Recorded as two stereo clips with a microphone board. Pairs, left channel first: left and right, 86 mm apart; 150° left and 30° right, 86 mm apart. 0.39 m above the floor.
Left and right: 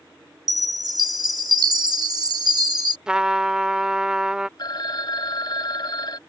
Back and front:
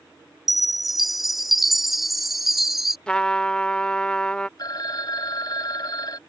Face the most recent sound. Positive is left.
turn(degrees=120)